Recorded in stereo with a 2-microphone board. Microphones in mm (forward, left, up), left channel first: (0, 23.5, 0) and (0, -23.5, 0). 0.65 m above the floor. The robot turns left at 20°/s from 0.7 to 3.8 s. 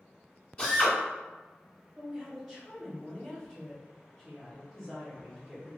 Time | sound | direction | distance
0.6 | a drill | 25° left (ahead or behind) | 1.4 m
1.9 | a woman speaking | 155° right | 1.2 m